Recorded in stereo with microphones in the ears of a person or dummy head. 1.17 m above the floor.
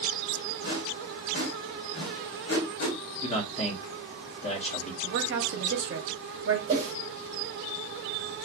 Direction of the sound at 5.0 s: 55° right (ahead or behind).